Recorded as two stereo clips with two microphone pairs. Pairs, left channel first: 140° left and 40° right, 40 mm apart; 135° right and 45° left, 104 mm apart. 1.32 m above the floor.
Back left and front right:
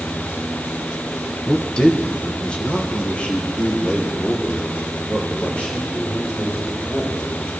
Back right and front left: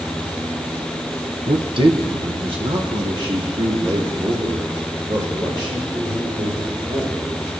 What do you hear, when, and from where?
1.5 s a man speaking: 75° left, 0.9 m; by 7.3 s 80° left, 6 m